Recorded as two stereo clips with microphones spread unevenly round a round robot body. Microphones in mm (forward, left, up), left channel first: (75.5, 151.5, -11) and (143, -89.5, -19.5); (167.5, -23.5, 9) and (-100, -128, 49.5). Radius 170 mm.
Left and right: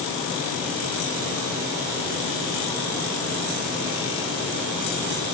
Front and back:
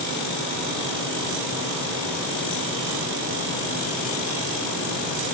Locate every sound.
Only background noise.